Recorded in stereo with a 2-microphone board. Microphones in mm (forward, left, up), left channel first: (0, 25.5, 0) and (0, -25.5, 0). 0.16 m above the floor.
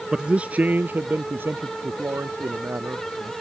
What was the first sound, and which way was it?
A man speaking, 15° right (ahead or behind).